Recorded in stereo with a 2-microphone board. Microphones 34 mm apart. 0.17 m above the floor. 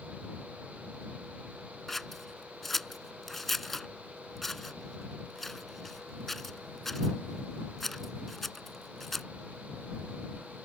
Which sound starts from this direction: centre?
Scissors, at 1.9 s.